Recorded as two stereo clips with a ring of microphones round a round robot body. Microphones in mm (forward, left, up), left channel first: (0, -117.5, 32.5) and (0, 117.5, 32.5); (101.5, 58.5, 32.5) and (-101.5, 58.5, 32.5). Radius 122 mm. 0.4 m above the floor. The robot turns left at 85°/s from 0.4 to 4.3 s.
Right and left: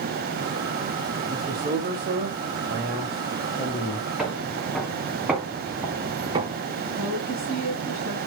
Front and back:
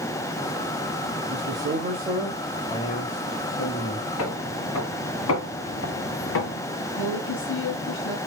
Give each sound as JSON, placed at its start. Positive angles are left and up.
{"t": 1.3, "sound": "a man speaking", "azimuth_deg": -175, "distance_m": 1.6}
{"t": 4.2, "sound": "footsteps", "azimuth_deg": 5, "distance_m": 3.0}
{"t": 7.0, "sound": "a woman speaking", "azimuth_deg": 5, "distance_m": 3.0}